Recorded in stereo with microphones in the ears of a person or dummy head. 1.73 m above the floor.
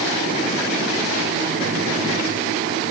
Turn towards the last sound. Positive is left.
No sound to turn to.